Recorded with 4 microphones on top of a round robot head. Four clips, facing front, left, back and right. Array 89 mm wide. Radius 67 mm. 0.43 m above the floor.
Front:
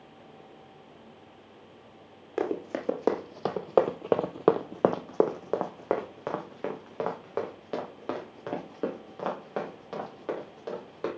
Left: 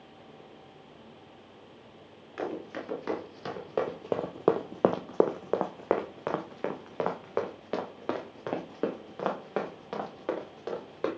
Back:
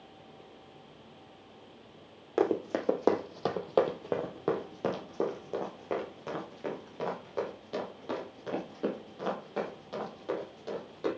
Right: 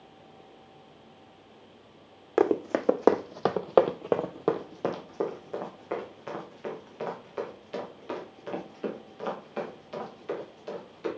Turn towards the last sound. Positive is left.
turn(degrees=65)